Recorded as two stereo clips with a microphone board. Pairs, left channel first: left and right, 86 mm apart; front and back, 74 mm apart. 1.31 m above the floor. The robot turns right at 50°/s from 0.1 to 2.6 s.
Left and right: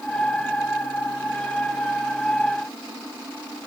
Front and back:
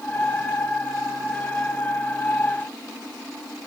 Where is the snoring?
No snoring in this recording.